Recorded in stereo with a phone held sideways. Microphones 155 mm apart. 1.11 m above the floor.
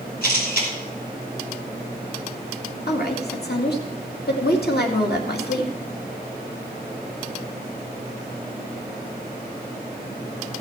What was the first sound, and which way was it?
A camera shutter, 65° left (ahead or behind).